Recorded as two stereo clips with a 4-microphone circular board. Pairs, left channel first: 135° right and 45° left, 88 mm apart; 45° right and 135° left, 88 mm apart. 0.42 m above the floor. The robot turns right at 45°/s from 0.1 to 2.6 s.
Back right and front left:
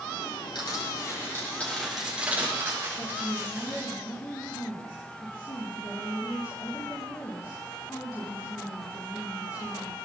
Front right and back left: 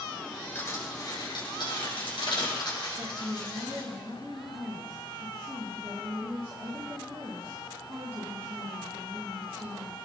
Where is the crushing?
110° right, 6.5 m; by 3.9 s 15° right, 6.5 m.